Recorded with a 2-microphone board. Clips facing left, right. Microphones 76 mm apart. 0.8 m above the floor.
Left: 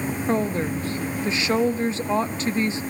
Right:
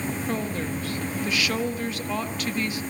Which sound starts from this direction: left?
A woman speaking, at 0.3 s.